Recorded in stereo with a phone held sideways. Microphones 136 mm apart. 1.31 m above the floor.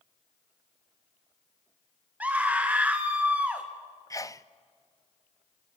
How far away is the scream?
About 1.6 m.